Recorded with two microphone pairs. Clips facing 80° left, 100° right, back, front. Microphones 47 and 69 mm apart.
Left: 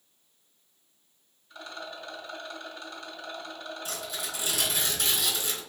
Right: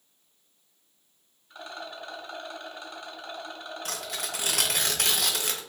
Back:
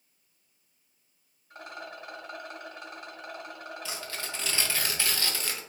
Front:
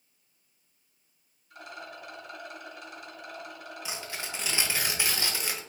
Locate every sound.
1.5 s a rattle: 160° right, 1.2 m
3.9 s tearing paper: 70° right, 0.6 m